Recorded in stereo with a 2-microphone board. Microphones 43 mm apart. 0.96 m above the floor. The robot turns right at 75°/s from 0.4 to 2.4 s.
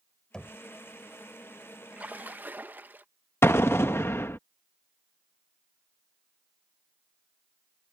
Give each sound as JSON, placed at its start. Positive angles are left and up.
{"t": 0.3, "sound": "knocking", "side_deg": 15}
{"t": 1.9, "sound": "a splash", "azimuth_deg": -130}
{"t": 3.4, "sound": "an explosion", "side_deg": 60}